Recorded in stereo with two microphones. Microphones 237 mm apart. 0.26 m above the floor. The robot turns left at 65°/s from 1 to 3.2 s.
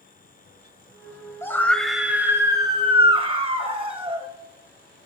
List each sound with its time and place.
1.4 s a scream: 10° left (ahead or behind), 1.2 m; by 4.3 s 20° right (ahead or behind), 1.2 m